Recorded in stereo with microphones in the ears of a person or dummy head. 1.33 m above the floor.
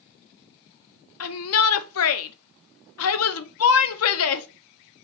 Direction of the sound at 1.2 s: 65° left (ahead or behind).